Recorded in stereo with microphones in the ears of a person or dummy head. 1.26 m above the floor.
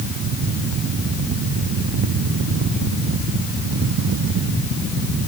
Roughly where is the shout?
No shout in this recording.